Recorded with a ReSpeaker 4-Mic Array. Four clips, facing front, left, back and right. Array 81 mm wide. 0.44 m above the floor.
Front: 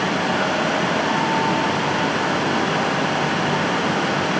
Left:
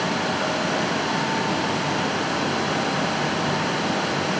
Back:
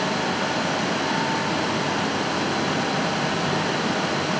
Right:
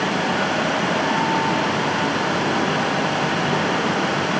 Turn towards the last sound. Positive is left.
No sound to turn to.